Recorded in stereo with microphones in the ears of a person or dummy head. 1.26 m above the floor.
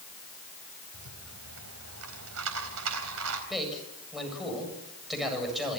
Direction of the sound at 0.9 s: 85° right.